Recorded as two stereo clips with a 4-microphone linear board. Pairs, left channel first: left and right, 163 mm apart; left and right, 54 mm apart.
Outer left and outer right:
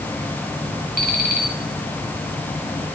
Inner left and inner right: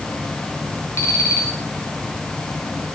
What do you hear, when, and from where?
1.0 s an alarm clock: 60° left (ahead or behind), 2 m